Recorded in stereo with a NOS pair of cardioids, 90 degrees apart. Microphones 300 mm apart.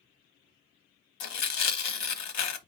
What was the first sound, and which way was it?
Tearing paper, 65° left.